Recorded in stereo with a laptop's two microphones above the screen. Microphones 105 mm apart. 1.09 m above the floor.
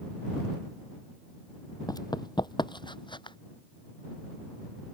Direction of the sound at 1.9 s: 35° left (ahead or behind).